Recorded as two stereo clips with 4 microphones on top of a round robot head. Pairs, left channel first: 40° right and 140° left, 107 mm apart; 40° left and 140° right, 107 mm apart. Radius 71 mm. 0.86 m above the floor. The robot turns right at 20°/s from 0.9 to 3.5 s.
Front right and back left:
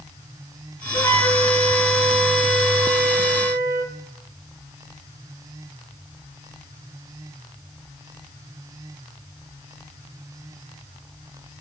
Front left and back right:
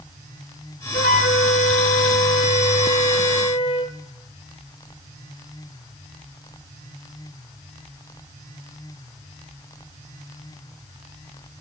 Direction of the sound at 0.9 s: 30° left.